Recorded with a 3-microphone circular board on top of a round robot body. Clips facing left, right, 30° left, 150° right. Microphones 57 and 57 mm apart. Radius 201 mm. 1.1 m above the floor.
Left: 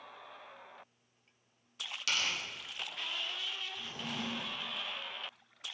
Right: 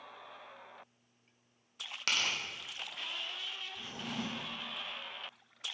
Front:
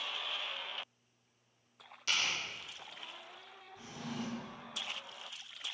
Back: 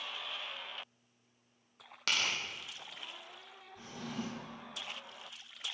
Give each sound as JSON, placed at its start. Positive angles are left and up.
{"t": 2.1, "sound": "tearing paper", "azimuth_deg": -135, "distance_m": 1.8}
{"t": 3.8, "sound": "a drawer", "azimuth_deg": -95, "distance_m": 3.0}